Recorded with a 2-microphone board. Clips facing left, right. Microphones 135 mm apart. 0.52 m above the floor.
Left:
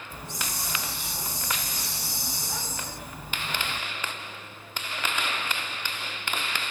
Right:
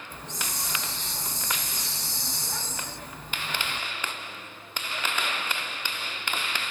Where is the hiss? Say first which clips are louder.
Left 1 dB; 10° left (ahead or behind), 0.6 m.